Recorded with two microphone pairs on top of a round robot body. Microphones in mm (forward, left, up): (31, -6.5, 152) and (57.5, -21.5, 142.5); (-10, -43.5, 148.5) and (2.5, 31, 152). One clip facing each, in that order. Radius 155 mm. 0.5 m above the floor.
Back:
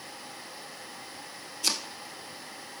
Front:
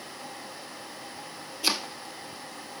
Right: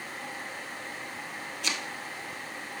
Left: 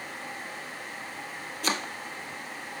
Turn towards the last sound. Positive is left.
turn(degrees=30)